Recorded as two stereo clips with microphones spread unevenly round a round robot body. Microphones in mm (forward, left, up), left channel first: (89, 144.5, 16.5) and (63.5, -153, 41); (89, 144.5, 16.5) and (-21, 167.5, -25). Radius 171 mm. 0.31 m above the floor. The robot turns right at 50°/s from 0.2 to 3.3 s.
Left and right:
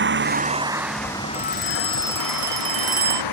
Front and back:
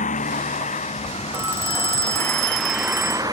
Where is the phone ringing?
125° left; by 3.2 s 145° right.